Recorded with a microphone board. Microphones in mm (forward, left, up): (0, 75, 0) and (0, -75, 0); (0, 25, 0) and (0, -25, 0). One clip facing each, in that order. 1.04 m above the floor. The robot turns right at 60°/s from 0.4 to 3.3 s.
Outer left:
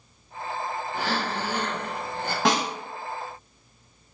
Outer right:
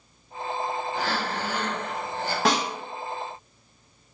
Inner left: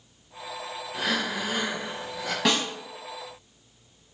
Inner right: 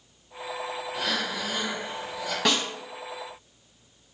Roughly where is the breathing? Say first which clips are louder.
Even, inner left 3 dB; ahead.